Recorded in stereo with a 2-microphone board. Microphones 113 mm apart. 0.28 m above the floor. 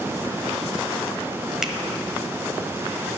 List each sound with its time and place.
1.6 s a finger snap: 5° right (ahead or behind), 1.0 m